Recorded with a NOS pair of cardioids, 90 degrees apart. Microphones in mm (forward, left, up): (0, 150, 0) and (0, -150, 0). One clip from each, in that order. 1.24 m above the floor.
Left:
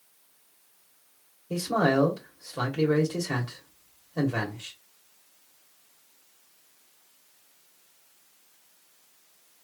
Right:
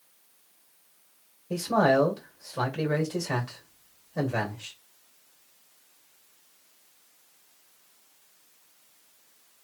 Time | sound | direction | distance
1.5 | a man speaking | straight ahead | 2 m